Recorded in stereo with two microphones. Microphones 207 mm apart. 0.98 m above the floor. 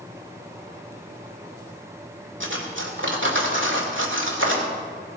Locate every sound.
2.4 s cutlery clinking: 85° right, 1.9 m